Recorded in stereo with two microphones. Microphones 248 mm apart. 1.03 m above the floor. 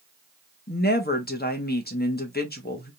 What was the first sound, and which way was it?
A woman speaking, 40° left (ahead or behind).